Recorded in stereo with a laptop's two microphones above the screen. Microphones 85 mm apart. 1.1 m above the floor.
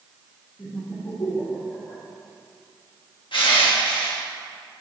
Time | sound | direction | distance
0.6 | laughter | 40° left (ahead or behind) | 3.5 m
3.3 | crushing | 70° left (ahead or behind) | 1.9 m